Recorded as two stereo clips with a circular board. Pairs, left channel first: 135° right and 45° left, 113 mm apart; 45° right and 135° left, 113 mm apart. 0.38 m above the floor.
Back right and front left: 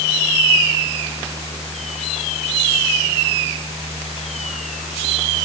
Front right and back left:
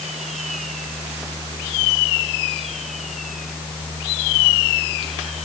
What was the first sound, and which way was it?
Only background noise.